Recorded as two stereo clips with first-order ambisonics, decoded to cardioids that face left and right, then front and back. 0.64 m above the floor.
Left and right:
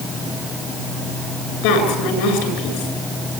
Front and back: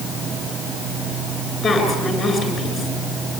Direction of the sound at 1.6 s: 75° left.